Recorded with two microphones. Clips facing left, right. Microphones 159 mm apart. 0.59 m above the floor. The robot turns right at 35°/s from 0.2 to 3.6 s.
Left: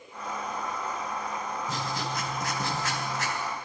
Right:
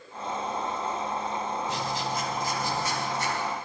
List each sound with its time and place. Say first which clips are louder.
1.7 s writing: right 2 dB; 40° left, 1.5 m; by 3.4 s 100° left, 1.5 m